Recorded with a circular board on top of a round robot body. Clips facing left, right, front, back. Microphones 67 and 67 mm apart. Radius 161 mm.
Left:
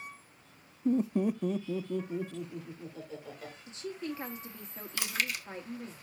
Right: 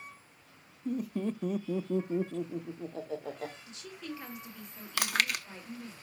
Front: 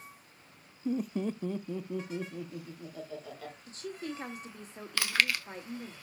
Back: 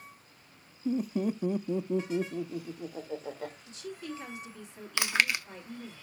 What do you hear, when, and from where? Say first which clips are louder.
0.8 s laughter: left 5 dB, back 2 dB; 85° left, 0.8 m; by 3.6 s 120° right, 1.8 m
3.7 s a woman speaking: left 5 dB, front 1 dB; 35° left, 1.8 m
5.0 s chewing: right 4 dB, back 1 dB; 110° right, 1.1 m